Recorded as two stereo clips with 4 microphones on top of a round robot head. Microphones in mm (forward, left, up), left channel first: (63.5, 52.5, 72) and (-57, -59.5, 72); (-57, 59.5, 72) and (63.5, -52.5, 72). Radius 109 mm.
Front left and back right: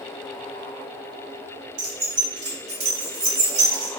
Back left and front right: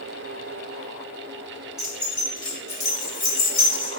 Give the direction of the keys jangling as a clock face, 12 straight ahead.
4 o'clock.